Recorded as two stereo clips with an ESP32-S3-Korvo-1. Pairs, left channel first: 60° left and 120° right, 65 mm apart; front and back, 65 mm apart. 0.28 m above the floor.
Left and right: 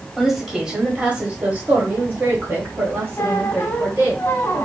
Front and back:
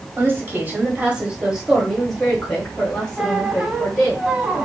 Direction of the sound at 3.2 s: 110° left.